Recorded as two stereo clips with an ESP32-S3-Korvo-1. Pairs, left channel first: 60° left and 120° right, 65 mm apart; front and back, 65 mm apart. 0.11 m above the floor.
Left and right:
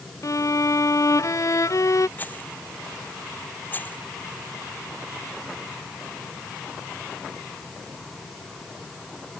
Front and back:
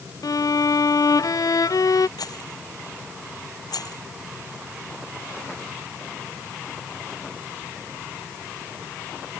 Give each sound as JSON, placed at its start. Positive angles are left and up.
{"t": 0.2, "sound": "a violin", "azimuth_deg": 25}
{"t": 2.2, "sound": "a rattle", "azimuth_deg": 0}